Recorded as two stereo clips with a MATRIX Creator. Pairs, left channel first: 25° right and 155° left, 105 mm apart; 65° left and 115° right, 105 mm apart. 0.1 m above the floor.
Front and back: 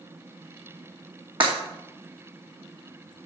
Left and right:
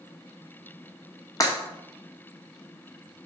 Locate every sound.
1.4 s breaking glass: 125° left, 1.9 m